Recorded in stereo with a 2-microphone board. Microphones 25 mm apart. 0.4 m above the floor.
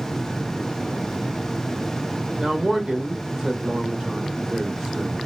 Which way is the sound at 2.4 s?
25° right (ahead or behind).